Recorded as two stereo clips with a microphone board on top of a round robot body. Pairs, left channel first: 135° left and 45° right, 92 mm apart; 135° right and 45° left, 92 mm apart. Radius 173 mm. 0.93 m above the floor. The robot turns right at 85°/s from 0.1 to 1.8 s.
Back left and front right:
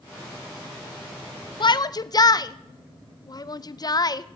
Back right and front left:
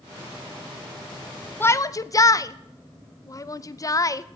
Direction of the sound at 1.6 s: 160° left.